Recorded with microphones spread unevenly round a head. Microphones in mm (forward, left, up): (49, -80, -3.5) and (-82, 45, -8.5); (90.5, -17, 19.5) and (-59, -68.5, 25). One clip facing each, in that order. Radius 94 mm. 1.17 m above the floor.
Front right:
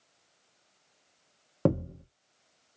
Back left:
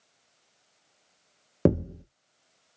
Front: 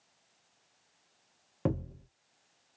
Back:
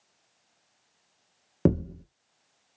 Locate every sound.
1.6 s a thud: 160° right, 0.6 m